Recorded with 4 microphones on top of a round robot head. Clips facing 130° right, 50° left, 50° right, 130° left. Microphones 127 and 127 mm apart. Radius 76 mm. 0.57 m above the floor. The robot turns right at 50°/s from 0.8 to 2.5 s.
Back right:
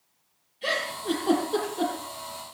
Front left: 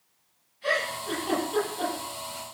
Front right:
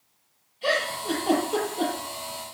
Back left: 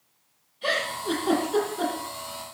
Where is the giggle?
130° right, 9.5 m; by 1.9 s 75° right, 9.5 m.